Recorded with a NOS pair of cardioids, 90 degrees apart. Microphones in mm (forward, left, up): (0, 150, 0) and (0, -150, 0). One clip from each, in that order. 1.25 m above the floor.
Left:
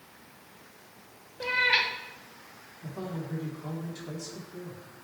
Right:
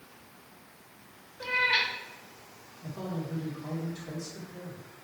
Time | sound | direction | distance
1.4 | a cat meowing | 20° left | 1.3 m
2.8 | a man speaking | 20° left | 4 m